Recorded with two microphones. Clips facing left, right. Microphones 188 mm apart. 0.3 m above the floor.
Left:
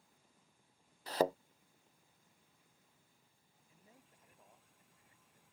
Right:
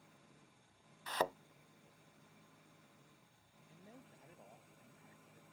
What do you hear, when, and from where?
0.0 s an engine running: 85° right
1.1 s a thud: 35° left (ahead or behind)
3.7 s a man speaking: 35° right (ahead or behind)